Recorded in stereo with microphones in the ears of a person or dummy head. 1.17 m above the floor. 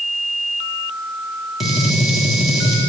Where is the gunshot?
Centre (ahead or behind), 2.5 m.